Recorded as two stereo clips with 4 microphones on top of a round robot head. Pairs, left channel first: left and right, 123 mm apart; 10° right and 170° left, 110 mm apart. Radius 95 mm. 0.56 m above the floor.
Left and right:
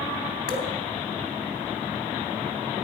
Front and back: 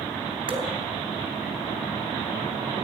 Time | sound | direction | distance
0.5 | dripping | 130° left | 3 m